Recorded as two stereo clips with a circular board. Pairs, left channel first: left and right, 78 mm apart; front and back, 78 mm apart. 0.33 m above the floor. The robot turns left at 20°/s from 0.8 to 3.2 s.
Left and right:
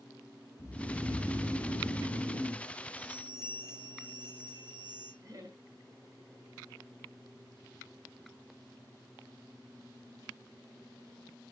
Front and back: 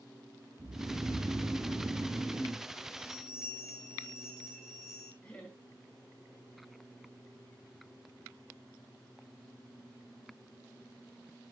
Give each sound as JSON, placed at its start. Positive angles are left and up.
{"t": 0.6, "sound": "snoring", "azimuth_deg": 135, "distance_m": 0.8}
{"t": 3.0, "sound": "a bell", "azimuth_deg": -90, "distance_m": 5.0}
{"t": 5.2, "sound": "laughter", "azimuth_deg": -65, "distance_m": 1.8}